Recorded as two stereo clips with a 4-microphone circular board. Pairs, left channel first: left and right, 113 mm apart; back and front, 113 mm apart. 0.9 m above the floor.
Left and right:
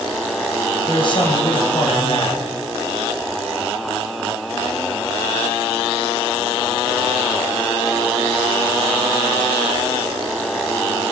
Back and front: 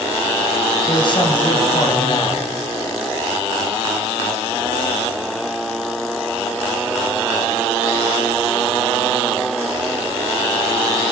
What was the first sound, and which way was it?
A man speaking, 135° left.